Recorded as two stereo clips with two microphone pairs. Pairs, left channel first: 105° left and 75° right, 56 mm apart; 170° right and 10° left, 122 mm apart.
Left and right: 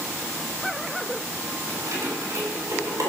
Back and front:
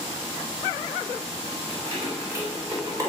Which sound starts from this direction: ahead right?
Keys jangling, at 1.7 s.